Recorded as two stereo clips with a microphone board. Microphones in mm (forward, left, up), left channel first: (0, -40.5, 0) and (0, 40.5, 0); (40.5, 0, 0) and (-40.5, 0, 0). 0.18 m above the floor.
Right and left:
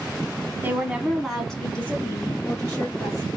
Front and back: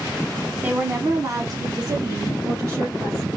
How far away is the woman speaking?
About 1.1 m.